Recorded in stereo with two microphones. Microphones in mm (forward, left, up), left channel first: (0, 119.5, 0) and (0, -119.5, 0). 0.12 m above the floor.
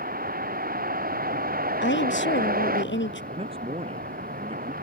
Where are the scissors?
I don't hear scissors.